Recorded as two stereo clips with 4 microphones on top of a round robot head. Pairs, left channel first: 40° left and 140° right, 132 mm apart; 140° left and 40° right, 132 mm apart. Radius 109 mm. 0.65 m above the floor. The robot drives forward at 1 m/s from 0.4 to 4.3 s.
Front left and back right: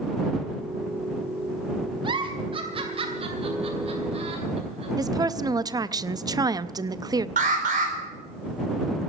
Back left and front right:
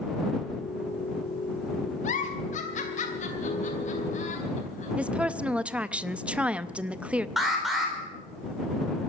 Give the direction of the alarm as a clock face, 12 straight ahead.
4 o'clock.